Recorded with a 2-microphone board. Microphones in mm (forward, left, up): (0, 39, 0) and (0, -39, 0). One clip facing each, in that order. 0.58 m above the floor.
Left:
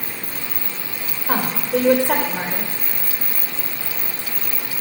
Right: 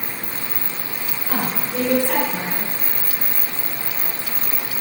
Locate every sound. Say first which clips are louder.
1.3 s a woman speaking: left 5 dB; 65° left (ahead or behind), 2 m